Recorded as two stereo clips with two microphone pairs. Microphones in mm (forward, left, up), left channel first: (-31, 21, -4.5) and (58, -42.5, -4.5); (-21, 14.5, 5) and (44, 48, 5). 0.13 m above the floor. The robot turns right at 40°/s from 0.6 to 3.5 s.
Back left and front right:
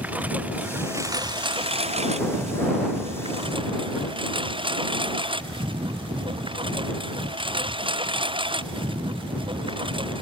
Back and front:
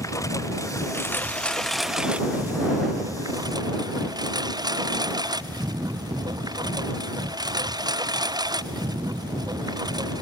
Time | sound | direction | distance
0.0 | a lawn mower | 110° right | ?